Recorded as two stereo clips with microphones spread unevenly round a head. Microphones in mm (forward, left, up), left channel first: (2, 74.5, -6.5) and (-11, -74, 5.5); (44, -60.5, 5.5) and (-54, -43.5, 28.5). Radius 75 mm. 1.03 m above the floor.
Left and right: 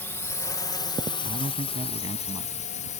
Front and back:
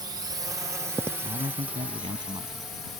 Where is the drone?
145° left; by 3.0 s 65° left.